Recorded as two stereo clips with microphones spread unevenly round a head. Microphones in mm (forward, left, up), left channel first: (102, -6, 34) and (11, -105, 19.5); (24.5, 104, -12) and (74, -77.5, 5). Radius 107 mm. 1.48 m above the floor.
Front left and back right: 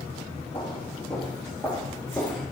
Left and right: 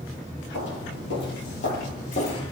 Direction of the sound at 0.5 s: 105° left.